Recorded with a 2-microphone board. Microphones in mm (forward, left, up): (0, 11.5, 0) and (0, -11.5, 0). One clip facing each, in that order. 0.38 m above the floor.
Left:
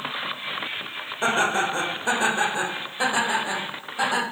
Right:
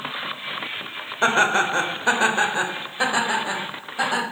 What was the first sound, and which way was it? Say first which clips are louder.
Laughter: right 4 dB; 30° right (ahead or behind).